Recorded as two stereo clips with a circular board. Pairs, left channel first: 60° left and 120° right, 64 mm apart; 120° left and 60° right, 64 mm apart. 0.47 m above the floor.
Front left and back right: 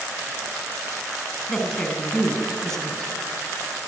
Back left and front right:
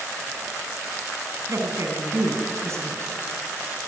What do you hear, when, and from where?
1.5 s a woman speaking: 20° right, 4 m